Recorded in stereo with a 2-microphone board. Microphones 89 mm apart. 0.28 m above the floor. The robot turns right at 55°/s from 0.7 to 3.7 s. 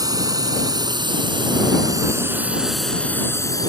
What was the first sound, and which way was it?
A drone, 50° right (ahead or behind).